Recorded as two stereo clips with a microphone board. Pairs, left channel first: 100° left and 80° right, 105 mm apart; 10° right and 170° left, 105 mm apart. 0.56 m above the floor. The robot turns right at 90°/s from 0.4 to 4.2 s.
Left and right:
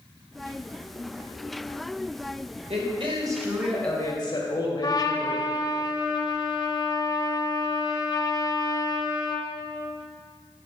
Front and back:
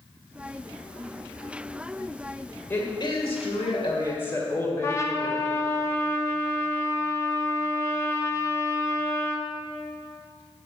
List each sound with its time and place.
2.7 s a woman speaking: 80° right, 2.5 m; by 5.8 s 55° left, 2.5 m
4.8 s a trumpet: 50° left, 1.1 m